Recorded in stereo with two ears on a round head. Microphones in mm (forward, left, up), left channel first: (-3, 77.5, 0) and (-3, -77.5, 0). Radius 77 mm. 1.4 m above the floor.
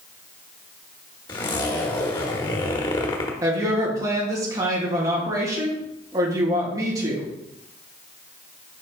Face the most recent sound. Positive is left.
turn(degrees=-20)  # may be behind; listen again after turning